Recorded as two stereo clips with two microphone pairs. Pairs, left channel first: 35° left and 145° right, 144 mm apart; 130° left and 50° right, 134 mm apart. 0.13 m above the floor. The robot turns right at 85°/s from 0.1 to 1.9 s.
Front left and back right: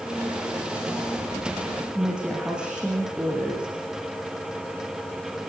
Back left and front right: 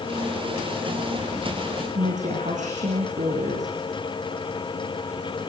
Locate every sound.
1.9 s a woman speaking: 60° right, 7.5 m